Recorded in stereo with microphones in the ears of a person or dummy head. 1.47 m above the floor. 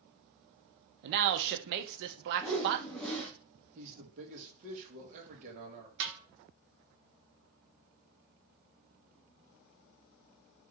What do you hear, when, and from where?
1.0 s a man speaking: 60° right (ahead or behind), 0.7 m
2.4 s a whoosh: 5° left (ahead or behind), 1.2 m
3.8 s a man speaking: 40° right (ahead or behind), 1.6 m
6.0 s a snare drum: 60° right (ahead or behind), 1.2 m